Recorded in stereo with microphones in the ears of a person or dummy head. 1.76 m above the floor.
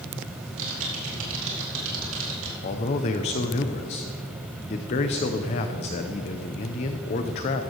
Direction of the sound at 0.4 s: 75° right (ahead or behind).